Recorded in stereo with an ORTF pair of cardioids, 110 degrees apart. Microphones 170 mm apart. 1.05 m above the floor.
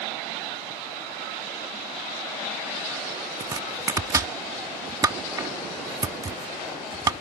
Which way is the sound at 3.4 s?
20° right.